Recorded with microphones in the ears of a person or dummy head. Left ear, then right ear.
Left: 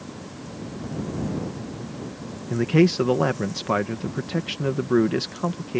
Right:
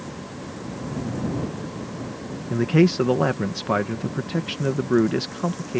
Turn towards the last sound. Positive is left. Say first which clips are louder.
# even
turn(degrees=5)  # may be behind; listen again after turning